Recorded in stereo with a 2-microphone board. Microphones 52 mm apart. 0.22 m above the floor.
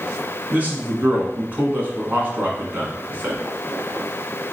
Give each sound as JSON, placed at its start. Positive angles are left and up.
{"t": 0.5, "sound": "a man speaking", "side_deg": -35, "distance_m": 1.5}